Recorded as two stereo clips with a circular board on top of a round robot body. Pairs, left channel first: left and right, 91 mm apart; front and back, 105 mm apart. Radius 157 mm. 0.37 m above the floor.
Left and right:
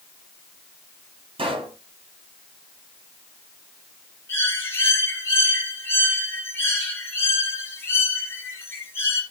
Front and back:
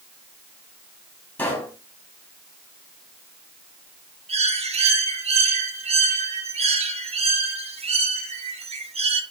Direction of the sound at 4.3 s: 155° left.